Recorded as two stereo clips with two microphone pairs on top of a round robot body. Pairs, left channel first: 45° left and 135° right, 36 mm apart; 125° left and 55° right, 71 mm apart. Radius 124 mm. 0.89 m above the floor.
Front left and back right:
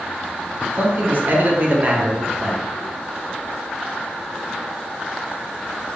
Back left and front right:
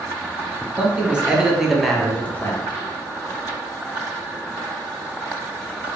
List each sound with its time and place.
0.8 s a man speaking: 110° right, 1.4 m; by 2.7 s 135° left, 0.9 m